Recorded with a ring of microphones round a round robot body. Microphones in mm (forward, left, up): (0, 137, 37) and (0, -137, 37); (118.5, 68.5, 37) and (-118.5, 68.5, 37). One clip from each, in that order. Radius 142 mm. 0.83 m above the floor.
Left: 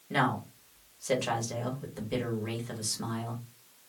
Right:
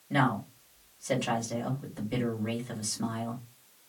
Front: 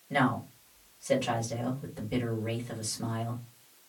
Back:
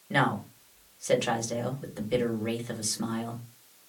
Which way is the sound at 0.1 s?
160° left.